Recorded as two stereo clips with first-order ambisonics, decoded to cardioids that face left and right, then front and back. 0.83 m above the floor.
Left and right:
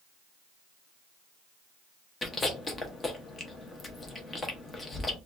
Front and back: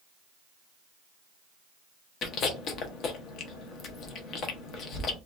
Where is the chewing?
25° left, 0.5 m.